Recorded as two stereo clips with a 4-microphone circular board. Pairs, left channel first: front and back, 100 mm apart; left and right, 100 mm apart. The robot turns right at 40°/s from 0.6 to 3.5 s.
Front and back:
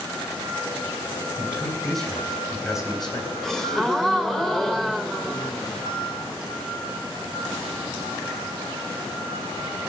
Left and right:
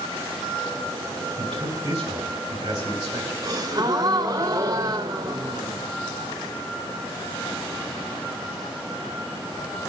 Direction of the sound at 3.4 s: 85° right.